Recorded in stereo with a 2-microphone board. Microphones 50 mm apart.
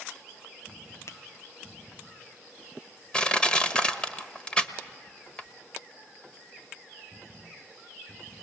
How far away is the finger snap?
About 0.8 m.